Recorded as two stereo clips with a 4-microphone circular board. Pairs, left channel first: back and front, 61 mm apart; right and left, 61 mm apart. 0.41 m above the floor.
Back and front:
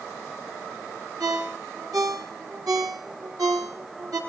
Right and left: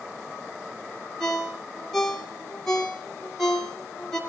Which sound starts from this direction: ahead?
A ringtone, at 1.2 s.